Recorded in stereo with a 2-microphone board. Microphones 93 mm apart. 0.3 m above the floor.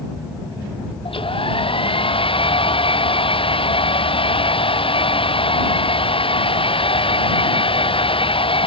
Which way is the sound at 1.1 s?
75° left (ahead or behind).